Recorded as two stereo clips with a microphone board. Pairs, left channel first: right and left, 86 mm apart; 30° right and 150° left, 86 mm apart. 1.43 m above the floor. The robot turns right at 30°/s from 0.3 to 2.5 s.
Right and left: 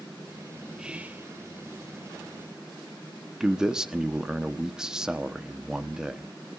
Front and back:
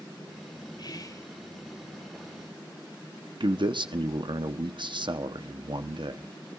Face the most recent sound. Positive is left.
turn(degrees=175)